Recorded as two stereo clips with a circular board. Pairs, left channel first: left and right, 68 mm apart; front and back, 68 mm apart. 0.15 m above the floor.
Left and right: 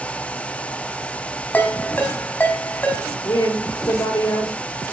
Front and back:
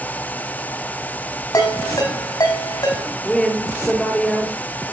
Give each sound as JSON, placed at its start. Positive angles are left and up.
{"t": 1.5, "sound": "a ringtone", "azimuth_deg": 25, "distance_m": 4.5}
{"t": 3.2, "sound": "a woman speaking", "azimuth_deg": 75, "distance_m": 3.5}